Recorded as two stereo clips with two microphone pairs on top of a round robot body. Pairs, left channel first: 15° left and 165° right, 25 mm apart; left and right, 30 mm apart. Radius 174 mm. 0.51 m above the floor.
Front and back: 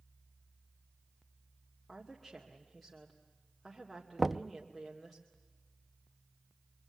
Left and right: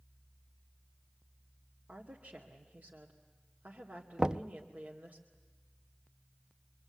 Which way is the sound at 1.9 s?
60° right.